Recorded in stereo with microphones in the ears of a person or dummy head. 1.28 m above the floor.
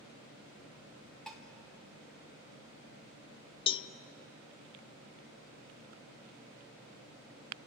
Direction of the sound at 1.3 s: Centre (ahead or behind).